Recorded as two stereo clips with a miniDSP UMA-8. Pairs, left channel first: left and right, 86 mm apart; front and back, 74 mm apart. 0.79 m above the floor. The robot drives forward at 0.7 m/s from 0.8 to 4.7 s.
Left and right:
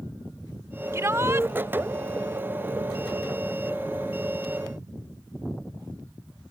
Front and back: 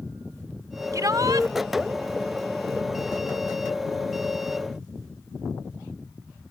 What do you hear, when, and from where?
0.9 s a shout: 145° right; by 1.5 s 150° right